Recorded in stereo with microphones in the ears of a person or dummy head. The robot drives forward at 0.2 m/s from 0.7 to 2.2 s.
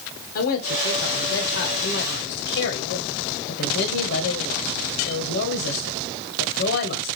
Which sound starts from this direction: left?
A man speaking, at 0.3 s.